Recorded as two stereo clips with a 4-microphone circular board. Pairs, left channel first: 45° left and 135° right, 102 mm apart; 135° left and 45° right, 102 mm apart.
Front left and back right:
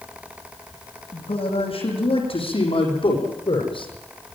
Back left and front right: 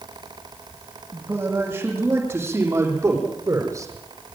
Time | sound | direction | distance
1.1 | a man speaking | 30° left | 8.5 m